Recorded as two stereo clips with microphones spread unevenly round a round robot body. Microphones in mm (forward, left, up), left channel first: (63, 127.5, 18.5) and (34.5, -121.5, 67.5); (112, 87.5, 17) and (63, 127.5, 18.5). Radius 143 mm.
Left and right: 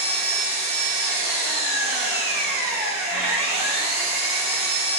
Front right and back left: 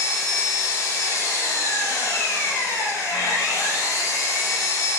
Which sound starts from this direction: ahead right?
An engine running, at 0.0 s.